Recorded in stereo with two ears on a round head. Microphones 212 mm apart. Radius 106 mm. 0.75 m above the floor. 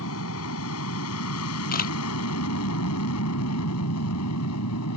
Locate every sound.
0.0 s an aircraft: 65° left (ahead or behind); by 5.0 s 75° left (ahead or behind)
1.7 s a camera shutter: 40° left (ahead or behind)